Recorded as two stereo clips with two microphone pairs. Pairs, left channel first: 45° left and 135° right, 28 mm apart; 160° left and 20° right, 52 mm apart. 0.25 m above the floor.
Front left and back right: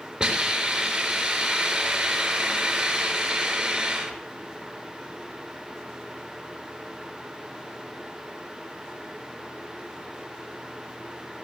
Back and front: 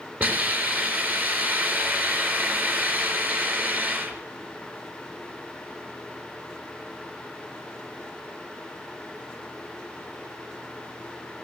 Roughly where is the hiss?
Right.